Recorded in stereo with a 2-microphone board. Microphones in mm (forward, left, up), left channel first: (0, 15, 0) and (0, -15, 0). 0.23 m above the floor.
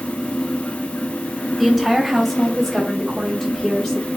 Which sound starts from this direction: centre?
A woman speaking, at 1.6 s.